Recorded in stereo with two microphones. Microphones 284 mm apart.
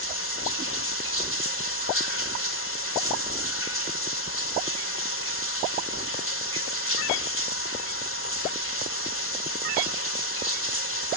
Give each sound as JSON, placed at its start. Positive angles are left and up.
{"t": 0.0, "sound": "running water", "side_deg": 50, "distance_m": 2.5}